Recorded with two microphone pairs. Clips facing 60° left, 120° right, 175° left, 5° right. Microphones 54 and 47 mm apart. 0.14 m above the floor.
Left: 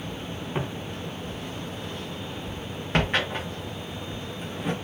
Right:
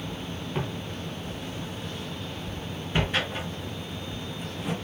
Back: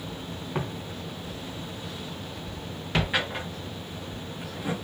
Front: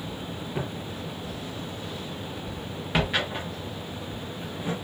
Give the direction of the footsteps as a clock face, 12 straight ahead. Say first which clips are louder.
Left 1 dB, back 1 dB; 8 o'clock.